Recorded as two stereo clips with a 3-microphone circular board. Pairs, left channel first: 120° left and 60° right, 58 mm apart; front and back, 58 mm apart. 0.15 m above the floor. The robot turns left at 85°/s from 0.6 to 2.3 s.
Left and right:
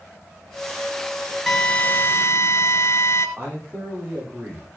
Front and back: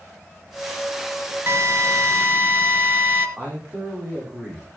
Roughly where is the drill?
Behind right.